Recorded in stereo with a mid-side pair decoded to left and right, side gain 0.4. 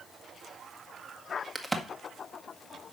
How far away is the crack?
About 1.7 m.